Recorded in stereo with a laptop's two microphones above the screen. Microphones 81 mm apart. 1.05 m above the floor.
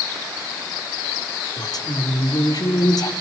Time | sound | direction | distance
1.6 | a woman speaking | 55° left (ahead or behind) | 2.5 m